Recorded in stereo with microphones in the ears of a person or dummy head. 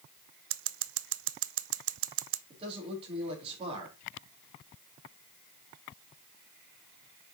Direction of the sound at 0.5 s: 70° right (ahead or behind).